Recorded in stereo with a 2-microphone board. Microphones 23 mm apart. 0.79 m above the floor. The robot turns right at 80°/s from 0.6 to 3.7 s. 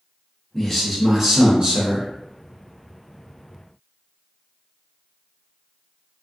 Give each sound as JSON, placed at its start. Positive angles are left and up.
{"t": 0.5, "sound": "a man speaking", "azimuth_deg": 155, "distance_m": 1.2}